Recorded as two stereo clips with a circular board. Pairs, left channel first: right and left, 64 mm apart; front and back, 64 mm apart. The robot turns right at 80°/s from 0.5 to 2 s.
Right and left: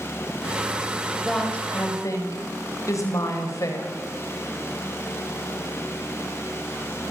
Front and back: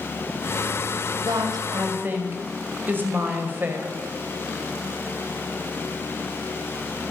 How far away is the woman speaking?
About 5.5 m.